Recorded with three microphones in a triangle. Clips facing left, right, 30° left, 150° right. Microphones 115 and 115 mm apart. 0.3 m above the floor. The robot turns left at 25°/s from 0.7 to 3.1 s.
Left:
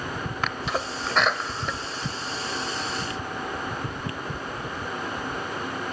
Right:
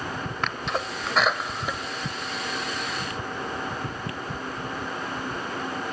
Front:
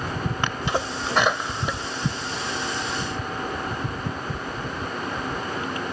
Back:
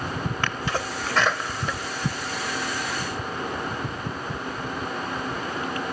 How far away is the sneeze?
About 1.1 m.